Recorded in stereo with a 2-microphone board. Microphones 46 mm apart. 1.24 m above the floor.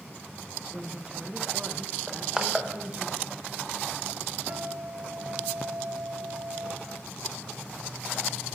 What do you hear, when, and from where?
0.7 s a woman speaking: 25° right (ahead or behind), 0.8 m
2.1 s crushing: 15° right (ahead or behind), 0.9 m
4.5 s a guitar: 55° right (ahead or behind), 1.8 m